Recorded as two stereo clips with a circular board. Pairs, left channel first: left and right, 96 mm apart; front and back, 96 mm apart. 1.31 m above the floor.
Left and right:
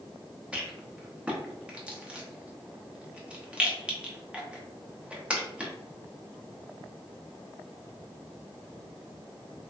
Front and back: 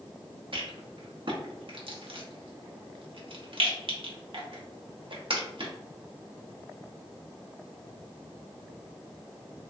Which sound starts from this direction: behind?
A rattle, at 0.5 s.